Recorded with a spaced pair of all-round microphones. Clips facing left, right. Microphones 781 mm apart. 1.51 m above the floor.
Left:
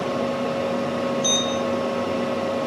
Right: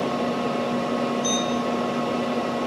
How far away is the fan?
About 4 m.